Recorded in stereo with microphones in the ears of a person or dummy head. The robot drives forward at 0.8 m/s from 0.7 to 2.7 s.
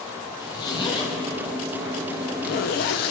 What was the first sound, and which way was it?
A zipper, 25° left (ahead or behind).